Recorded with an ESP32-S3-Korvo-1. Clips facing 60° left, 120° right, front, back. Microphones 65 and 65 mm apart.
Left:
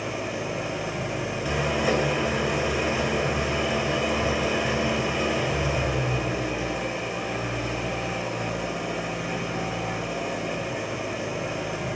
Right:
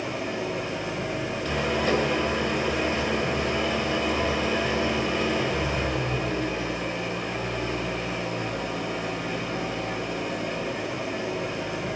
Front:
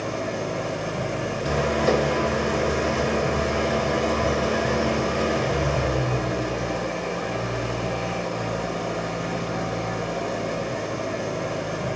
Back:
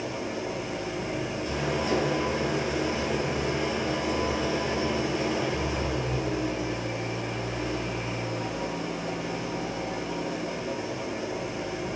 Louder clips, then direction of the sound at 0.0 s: Even, front 4 dB; 25° right.